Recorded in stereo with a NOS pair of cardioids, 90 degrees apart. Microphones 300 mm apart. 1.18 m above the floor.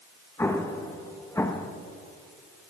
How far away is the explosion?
About 0.9 m.